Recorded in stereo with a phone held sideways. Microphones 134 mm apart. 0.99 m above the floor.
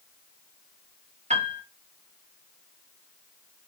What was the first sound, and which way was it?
A piano, 55° right (ahead or behind).